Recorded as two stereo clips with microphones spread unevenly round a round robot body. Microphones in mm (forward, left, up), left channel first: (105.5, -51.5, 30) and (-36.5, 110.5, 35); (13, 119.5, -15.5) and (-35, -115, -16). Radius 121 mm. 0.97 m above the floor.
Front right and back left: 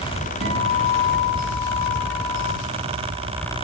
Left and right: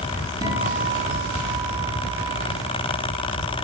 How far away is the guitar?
About 9.5 m.